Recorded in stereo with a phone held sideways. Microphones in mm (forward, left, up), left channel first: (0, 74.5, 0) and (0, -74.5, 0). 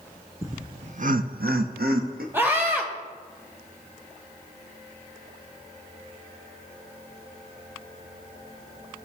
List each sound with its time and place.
0.4 s laughter: 20° right (ahead or behind), 0.6 m; by 2.2 s 75° right (ahead or behind), 1.2 m
2.3 s a scream: 15° right (ahead or behind), 1.7 m